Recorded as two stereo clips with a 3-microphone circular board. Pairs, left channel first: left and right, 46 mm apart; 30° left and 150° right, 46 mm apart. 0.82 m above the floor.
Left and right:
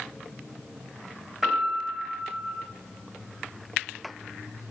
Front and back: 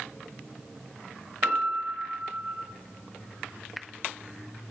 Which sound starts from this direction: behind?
A piano, at 1.4 s.